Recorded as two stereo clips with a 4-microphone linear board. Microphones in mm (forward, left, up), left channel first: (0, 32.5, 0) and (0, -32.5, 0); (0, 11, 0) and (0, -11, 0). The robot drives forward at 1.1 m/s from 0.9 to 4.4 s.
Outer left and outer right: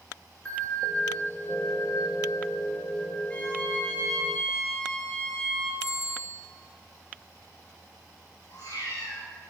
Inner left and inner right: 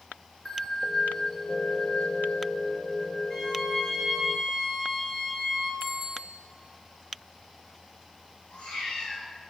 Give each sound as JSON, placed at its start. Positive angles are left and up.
{"t": 0.5, "sound": "a bell", "side_deg": 20, "distance_m": 1.5}
{"t": 3.3, "sound": "a violin", "side_deg": 20, "distance_m": 3.5}
{"t": 5.8, "sound": "a bicycle bell", "side_deg": -15, "distance_m": 6.5}
{"t": 8.5, "sound": "a cat meowing", "side_deg": 70, "distance_m": 6.5}